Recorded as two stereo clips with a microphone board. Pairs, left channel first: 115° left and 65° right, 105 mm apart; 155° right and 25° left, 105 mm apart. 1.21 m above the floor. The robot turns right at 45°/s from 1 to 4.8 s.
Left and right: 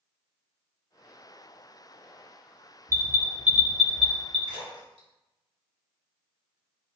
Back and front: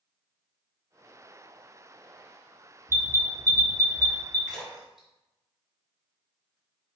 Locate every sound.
2.9 s an alarm: 25° right, 1.1 m; by 4.4 s 40° left, 1.1 m
4.5 s a splash: 75° right, 1.9 m; by 6.6 s 60° right, 1.9 m